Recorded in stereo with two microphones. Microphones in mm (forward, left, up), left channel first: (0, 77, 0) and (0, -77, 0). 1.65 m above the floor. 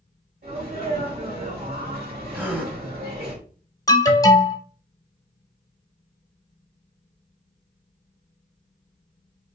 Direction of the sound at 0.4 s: 70° right (ahead or behind).